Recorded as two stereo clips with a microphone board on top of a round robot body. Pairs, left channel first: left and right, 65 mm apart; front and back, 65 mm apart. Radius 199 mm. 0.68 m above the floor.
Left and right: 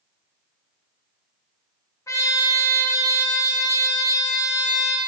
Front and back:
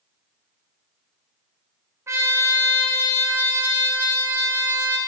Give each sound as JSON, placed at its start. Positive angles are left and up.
{"t": 2.1, "sound": "a trumpet", "azimuth_deg": 130, "distance_m": 0.9}